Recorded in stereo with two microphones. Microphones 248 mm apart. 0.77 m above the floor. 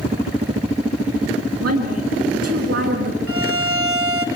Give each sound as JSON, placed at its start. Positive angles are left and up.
{"t": 1.6, "sound": "a woman speaking", "side_deg": -75, "distance_m": 8.0}
{"t": 3.3, "sound": "a violin", "side_deg": -60, "distance_m": 2.5}